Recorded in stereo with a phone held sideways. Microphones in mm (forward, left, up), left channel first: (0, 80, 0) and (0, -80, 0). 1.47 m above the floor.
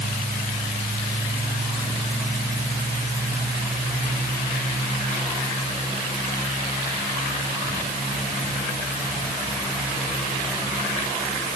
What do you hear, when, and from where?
Only background noise.